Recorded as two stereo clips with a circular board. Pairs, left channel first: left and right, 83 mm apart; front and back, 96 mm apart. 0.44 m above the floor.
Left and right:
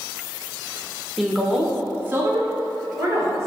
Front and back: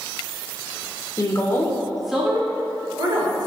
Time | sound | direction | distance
1.2 | a woman speaking | straight ahead | 1.0 m